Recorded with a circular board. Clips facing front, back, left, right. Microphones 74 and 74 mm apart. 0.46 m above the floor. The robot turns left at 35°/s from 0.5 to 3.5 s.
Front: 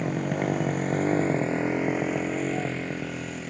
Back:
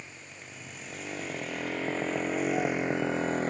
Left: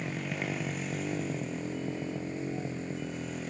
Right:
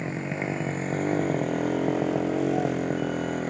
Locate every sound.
0.0 s a motorcycle: 25° right; by 3.5 s 130° right